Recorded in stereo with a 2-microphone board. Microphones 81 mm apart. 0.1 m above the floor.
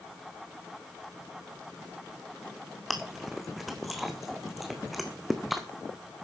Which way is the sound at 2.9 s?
Centre (ahead or behind).